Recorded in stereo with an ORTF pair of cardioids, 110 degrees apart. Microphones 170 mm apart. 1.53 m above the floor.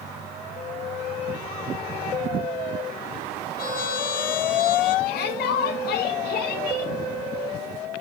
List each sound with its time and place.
3.6 s a trumpet: 60° left, 7.5 m
5.0 s a shout: 70° left, 7.5 m